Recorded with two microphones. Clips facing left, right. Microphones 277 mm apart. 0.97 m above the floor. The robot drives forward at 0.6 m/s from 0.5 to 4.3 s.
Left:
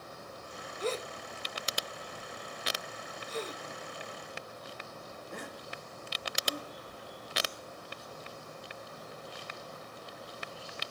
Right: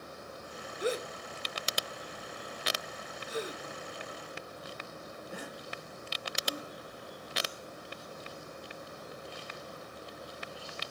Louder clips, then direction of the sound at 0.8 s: Right 2 dB; 15° right (ahead or behind).